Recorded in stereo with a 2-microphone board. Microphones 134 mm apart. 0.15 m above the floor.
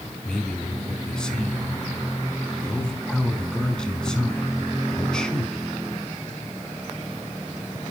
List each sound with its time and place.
0.2 s a man speaking: 5° left (ahead or behind), 1.0 m